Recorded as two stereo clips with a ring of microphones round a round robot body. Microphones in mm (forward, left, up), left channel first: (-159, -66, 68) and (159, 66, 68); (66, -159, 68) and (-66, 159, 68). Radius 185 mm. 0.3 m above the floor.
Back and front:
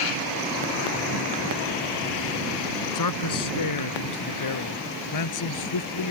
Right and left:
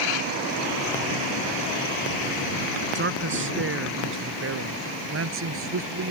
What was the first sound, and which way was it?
A man speaking, 170° left.